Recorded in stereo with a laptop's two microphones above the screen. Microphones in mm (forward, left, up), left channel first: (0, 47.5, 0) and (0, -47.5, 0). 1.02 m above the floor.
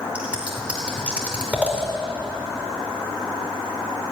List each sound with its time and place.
0.1 s scissors: 15° right (ahead or behind), 2.5 m